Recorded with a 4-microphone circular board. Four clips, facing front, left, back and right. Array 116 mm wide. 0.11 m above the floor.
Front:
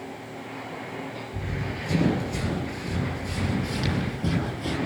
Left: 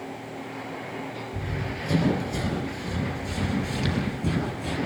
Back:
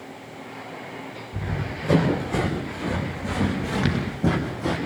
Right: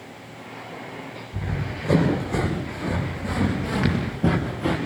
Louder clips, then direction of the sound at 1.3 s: Right 4 dB, back 4 dB; 140° right.